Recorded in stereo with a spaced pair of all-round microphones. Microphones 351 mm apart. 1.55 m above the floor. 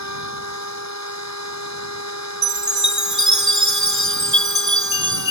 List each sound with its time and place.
0.0 s a machine running: 50° left (ahead or behind)
2.4 s a chime: 55° right (ahead or behind)